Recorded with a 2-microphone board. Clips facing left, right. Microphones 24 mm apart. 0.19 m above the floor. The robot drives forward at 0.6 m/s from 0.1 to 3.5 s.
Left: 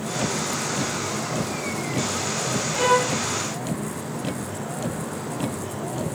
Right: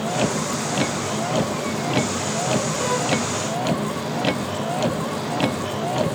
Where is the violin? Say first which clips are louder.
Left 2 dB; 30° left (ahead or behind).